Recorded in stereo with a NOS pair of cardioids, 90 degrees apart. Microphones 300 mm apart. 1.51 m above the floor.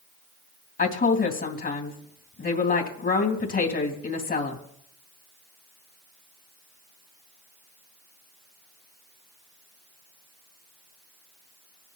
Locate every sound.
0.8 s a woman speaking: 35° left, 3 m